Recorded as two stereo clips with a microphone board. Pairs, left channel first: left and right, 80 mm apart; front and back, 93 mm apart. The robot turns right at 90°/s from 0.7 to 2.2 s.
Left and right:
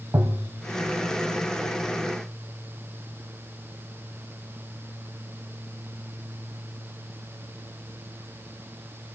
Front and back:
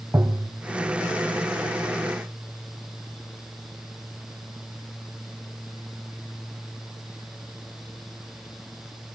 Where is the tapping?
130° right, 1.3 m.